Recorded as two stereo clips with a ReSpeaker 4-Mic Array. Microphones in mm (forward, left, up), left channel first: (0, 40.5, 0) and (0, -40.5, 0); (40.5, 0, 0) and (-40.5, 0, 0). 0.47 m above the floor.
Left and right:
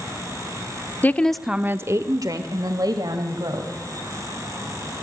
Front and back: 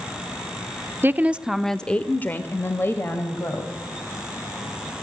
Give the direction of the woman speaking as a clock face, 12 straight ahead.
7 o'clock.